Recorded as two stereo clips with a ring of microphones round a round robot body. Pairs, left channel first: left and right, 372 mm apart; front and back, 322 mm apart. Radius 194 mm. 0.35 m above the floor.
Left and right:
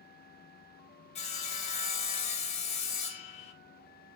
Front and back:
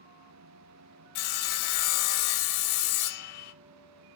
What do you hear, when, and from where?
1.1 s sawing: 15° left, 0.5 m